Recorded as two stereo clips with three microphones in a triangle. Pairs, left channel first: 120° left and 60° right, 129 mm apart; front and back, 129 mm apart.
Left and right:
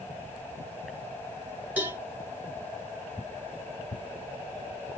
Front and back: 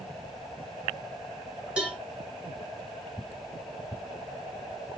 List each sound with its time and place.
1.8 s a cowbell: 115° right, 1.0 m